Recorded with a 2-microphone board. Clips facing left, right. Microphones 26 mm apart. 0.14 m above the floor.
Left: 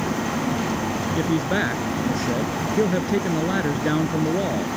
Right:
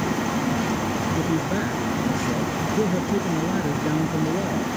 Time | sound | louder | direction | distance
1.1 | a man speaking | left 2 dB | 45° left (ahead or behind) | ?